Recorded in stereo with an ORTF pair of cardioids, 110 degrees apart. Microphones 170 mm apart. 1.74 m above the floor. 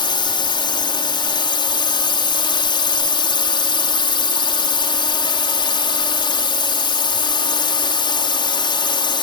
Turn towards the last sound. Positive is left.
turn(degrees=30)